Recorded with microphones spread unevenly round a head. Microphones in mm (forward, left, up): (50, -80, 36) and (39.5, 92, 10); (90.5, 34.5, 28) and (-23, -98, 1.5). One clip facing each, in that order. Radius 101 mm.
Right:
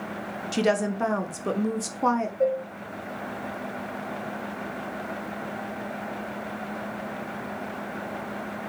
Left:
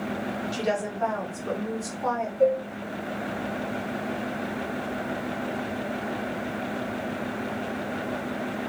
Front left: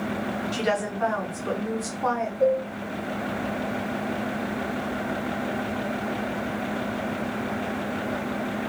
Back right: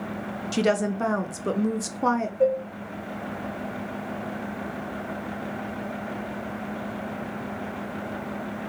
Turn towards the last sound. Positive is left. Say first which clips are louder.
# left 4 dB, front left 1 dB
turn(degrees=-165)